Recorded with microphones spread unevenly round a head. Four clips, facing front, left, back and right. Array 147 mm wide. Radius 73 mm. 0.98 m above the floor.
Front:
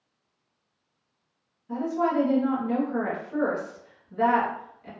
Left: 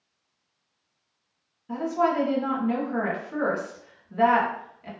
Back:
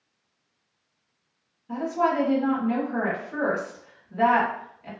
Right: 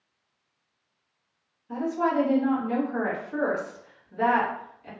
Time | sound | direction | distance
1.7 | a woman speaking | 100° left | 1.3 m